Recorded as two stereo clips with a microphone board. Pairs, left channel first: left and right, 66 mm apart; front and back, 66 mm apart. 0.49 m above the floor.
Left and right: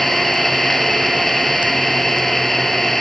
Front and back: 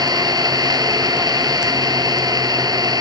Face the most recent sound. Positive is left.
turn(degrees=175)